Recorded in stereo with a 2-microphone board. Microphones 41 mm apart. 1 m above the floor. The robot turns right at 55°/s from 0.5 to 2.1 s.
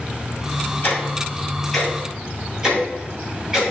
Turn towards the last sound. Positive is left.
turn(degrees=-15)  # may be behind; listen again after turning